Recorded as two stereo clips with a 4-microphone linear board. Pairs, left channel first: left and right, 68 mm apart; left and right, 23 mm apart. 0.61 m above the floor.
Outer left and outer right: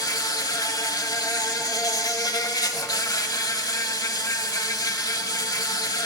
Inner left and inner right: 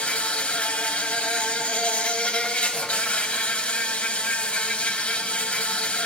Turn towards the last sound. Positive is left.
turn(degrees=70)  # may be behind; listen again after turning